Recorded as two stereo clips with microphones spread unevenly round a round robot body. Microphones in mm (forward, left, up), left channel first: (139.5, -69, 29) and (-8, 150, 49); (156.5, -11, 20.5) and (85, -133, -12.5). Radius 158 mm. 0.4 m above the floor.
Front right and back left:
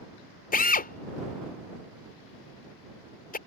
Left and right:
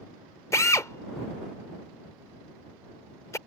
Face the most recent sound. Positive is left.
turn(degrees=-20)